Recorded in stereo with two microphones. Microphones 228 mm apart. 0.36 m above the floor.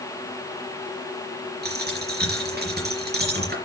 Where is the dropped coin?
45° right (ahead or behind), 3.5 m.